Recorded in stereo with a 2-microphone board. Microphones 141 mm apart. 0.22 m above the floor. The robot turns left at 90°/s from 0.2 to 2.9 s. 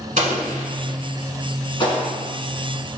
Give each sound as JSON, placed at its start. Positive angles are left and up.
{"t": 0.2, "sound": "an explosion", "side_deg": -60, "distance_m": 0.9}